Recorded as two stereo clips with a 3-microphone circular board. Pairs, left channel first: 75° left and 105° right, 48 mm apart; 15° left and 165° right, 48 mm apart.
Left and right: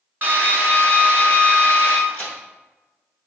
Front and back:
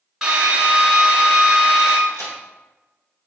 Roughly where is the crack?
Ahead.